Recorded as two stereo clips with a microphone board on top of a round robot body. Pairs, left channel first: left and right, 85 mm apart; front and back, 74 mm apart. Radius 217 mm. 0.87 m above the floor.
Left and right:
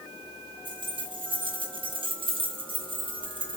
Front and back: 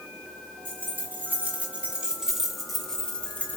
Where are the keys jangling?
120° right, 3 m; by 3.6 s 65° right, 1.8 m.